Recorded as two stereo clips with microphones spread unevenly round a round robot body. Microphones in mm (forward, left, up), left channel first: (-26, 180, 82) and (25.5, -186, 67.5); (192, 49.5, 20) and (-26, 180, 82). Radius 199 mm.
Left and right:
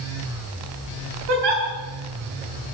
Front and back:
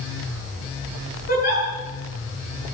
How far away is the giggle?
About 7.5 m.